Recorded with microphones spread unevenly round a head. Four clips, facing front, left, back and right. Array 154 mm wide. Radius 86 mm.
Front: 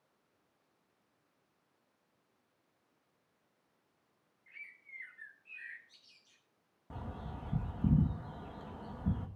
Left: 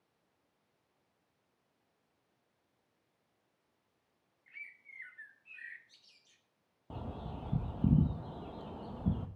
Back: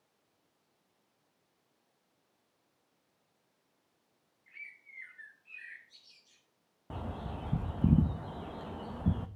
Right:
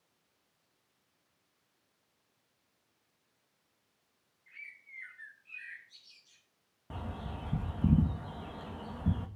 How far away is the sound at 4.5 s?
About 3.5 m.